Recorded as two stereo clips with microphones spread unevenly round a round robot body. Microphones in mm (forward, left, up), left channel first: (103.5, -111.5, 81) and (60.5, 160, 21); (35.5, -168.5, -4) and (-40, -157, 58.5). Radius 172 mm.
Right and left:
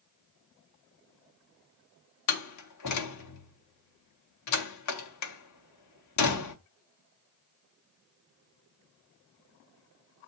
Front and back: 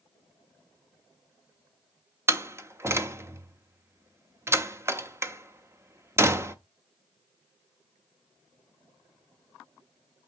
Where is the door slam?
125° right, 0.9 m.